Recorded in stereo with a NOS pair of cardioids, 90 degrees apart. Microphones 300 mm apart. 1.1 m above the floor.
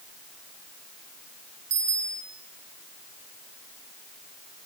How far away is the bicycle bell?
About 10 m.